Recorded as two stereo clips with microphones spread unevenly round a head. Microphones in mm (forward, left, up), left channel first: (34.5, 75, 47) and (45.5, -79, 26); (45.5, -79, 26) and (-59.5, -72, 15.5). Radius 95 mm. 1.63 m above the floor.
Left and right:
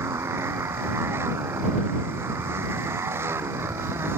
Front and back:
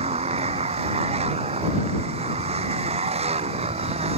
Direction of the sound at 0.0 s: 165° right.